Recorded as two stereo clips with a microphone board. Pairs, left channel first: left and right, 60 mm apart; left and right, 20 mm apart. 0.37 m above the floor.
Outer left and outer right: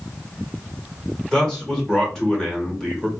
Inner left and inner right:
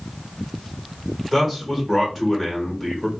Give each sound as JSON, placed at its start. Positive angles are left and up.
{"t": 1.3, "sound": "a man speaking", "side_deg": 10, "distance_m": 1.2}